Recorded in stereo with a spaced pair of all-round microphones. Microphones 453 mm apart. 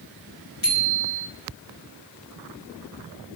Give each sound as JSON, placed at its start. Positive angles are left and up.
{"t": 0.6, "sound": "a bicycle bell", "side_deg": 45, "distance_m": 4.5}